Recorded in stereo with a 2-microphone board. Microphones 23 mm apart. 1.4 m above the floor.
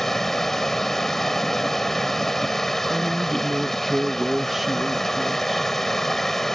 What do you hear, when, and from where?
0.0 s running water: 15° left (ahead or behind)
2.9 s a woman speaking: 10° right (ahead or behind)